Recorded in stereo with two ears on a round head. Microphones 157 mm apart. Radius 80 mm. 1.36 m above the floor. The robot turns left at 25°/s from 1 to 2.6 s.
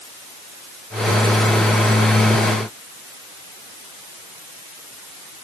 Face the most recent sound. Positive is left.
No sound to turn to.